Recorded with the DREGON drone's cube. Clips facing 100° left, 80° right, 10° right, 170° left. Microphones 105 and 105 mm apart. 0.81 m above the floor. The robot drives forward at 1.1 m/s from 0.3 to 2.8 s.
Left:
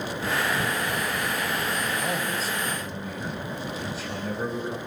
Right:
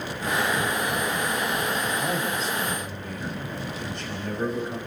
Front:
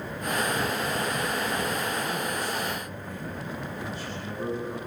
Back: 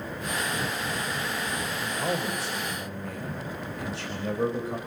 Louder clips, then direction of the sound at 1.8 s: Right 1 dB, back 1 dB; 170° right.